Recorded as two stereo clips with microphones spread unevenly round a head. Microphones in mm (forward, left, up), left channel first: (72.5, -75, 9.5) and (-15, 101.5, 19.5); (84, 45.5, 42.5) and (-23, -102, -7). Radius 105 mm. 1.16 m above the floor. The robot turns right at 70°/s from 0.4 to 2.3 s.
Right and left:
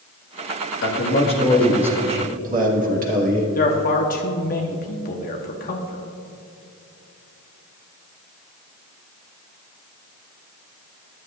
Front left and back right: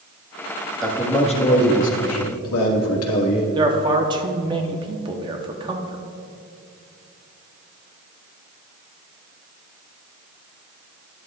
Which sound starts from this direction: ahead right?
A man speaking, at 0.8 s.